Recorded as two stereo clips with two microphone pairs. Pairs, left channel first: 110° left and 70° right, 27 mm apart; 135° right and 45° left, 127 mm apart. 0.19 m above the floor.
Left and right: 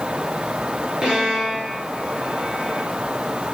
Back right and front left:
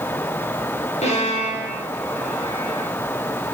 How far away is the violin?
About 3.5 m.